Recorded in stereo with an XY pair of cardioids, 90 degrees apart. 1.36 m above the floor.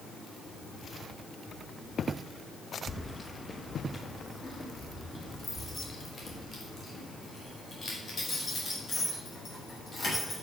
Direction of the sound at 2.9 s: 20° left.